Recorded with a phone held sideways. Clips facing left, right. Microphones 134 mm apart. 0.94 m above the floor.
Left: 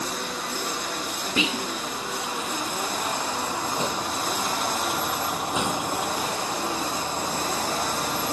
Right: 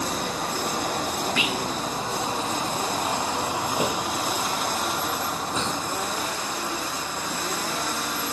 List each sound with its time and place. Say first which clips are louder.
0.0 s a vehicle: right 3 dB; 50° right (ahead or behind); by 8.3 s 40° left (ahead or behind)
1.4 s whispering: even; 25° left (ahead or behind)